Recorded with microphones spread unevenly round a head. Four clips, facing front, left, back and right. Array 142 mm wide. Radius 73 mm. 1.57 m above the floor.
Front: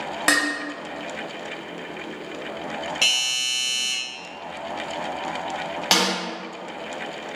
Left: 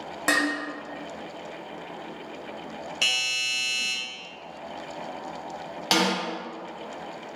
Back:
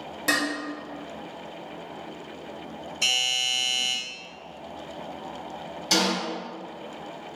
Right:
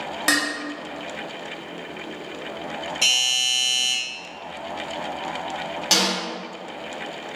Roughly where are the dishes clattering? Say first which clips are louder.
Even, front 3 dB; ahead right.